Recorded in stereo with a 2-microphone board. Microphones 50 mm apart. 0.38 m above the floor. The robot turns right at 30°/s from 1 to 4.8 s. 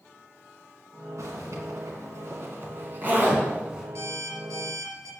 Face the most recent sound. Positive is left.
turn(degrees=-80)